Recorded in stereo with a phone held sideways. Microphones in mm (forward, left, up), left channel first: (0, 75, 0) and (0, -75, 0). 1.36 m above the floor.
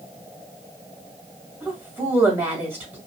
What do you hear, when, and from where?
1.6 s a woman speaking: 15° right (ahead or behind), 1.8 m